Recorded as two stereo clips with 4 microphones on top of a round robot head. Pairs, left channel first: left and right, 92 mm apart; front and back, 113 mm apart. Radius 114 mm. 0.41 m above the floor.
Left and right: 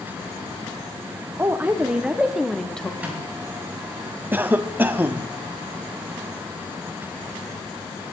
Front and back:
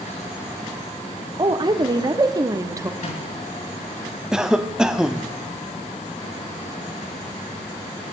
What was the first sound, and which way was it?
A woman speaking, 150° right.